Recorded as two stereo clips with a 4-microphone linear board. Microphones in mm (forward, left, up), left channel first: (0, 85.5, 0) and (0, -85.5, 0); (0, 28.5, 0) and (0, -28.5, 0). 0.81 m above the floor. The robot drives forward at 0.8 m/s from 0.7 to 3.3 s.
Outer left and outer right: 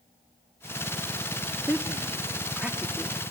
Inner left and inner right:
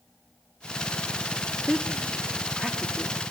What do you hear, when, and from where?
1.7 s a woman speaking: 10° right (ahead or behind), 1.2 m; by 3.2 s 5° right (ahead or behind), 2 m